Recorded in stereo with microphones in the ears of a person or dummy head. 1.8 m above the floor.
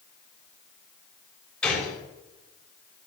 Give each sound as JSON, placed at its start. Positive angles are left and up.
{"t": 1.6, "sound": "a gunshot", "side_deg": 5, "distance_m": 3.0}